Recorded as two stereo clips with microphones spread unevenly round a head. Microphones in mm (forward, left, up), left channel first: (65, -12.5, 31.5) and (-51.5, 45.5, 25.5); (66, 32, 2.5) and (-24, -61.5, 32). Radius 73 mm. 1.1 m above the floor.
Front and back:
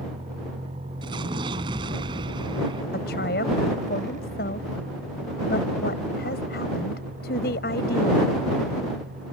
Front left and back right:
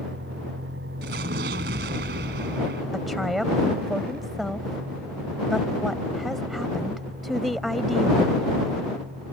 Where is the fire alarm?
I don't hear a fire alarm.